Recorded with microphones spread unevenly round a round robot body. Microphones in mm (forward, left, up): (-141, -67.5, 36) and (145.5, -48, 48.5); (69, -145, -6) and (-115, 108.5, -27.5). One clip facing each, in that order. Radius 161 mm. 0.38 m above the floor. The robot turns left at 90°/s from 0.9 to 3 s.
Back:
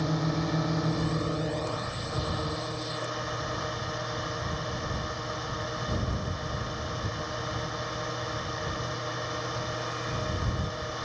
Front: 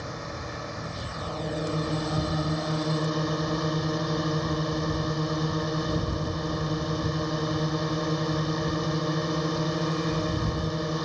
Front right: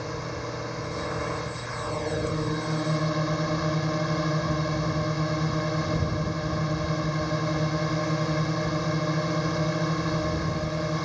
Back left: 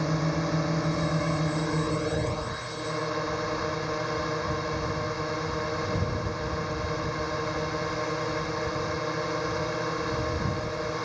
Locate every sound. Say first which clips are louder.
0.0 s a drone: back 8 dB, back left 6 dB; 150° left; by 11.1 s 40° right